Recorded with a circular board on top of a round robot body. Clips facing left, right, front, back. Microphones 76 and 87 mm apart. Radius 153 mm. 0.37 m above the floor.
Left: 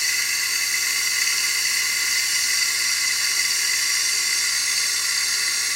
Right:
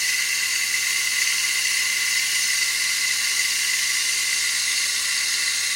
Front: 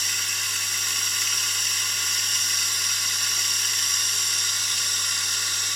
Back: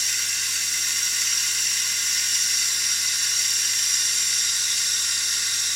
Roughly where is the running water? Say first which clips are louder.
Even, front 1 dB; ahead left.